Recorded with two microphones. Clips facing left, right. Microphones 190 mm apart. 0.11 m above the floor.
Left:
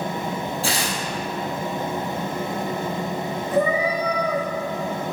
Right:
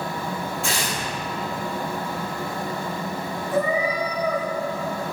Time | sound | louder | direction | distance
0.6 | tearing paper | left 2 dB | 35° left (ahead or behind) | 1.8 m
3.5 | a cat meowing | left 2 dB | centre (ahead or behind) | 2 m